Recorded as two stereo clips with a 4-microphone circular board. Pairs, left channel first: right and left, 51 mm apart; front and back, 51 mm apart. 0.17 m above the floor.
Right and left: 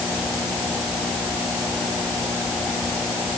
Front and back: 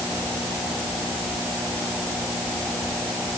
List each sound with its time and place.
Only background noise.